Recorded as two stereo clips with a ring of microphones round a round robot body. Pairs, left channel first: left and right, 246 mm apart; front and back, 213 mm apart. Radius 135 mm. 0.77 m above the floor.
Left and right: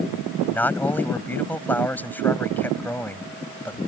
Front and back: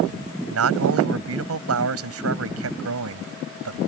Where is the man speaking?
175° left.